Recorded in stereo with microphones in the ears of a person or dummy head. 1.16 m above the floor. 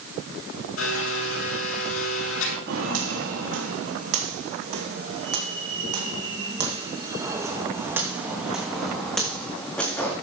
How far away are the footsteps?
About 3.5 m.